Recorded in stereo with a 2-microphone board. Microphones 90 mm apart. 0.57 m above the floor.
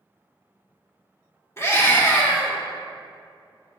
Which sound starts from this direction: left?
A scream, at 1.6 s.